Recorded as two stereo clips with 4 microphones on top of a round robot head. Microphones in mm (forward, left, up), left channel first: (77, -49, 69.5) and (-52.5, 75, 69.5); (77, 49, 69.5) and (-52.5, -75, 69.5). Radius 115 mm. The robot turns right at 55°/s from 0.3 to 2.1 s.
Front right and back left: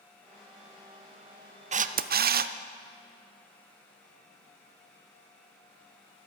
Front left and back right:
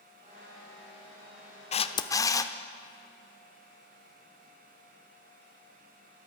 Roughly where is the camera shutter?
Left.